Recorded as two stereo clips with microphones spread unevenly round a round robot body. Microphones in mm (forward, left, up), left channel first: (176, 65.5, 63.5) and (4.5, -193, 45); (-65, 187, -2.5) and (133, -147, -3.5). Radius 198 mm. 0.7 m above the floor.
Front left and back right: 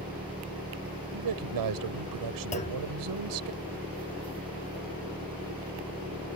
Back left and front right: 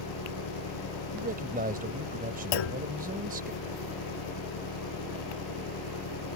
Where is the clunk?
125° left.